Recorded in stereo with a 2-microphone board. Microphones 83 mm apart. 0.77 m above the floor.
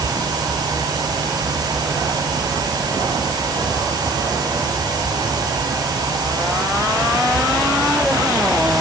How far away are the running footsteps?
No running footsteps in this recording.